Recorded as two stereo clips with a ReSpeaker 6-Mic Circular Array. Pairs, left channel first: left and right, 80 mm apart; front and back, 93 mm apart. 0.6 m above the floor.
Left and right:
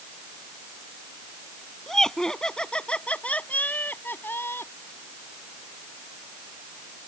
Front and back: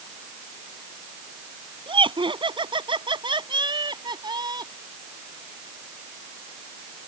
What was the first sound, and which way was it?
Laughter, 175° left.